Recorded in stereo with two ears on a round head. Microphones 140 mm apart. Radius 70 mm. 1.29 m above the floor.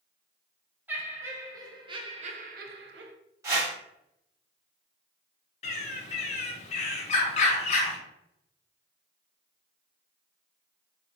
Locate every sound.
0.9 s laughter: 10° right (ahead or behind), 1.1 m; by 3.1 s 80° right, 0.5 m
3.4 s a whoosh: 20° right (ahead or behind), 1.2 m
5.6 s a bird: 45° left (ahead or behind), 0.6 m